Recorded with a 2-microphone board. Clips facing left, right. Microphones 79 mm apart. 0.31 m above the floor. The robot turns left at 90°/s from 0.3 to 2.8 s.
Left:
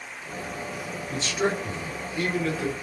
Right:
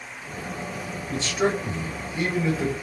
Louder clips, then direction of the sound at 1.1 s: Right 2 dB; 5° left (ahead or behind).